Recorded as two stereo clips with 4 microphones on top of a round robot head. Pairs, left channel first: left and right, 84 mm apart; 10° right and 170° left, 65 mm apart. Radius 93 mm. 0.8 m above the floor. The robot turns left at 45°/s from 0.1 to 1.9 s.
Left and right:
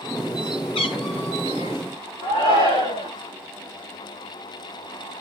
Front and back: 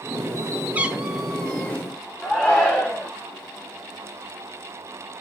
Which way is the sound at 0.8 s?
105° left.